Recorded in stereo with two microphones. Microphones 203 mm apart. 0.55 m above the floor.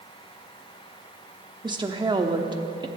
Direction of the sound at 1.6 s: 20° right (ahead or behind).